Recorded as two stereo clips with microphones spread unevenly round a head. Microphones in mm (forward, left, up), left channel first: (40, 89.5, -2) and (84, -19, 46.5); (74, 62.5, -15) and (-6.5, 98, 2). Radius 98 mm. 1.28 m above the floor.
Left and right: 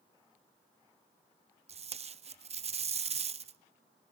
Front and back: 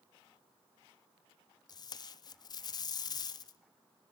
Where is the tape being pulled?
20° right, 0.5 m.